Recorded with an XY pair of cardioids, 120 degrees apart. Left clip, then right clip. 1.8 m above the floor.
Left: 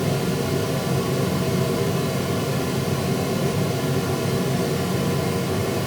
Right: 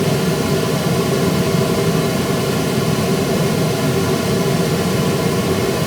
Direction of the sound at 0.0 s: 50° right.